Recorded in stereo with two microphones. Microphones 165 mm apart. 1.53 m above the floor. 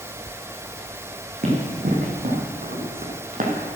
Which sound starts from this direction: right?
Running footsteps, at 1.4 s.